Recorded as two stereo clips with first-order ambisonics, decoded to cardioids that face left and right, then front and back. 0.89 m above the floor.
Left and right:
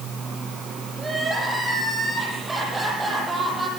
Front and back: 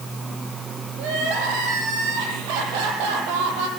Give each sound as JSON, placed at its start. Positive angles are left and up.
{"t": 1.0, "sound": "crying", "azimuth_deg": -170, "distance_m": 8.5}